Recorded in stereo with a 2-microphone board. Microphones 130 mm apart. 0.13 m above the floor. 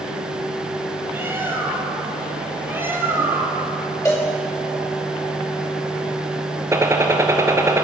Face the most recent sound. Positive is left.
turn(degrees=-20)  # may be behind; listen again after turning